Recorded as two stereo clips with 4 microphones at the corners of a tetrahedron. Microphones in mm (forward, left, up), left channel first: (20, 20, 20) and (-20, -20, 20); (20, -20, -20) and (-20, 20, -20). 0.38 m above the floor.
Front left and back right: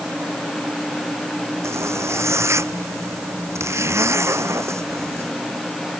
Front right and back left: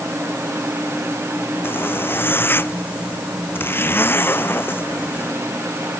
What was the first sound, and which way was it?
A zipper, 100° right.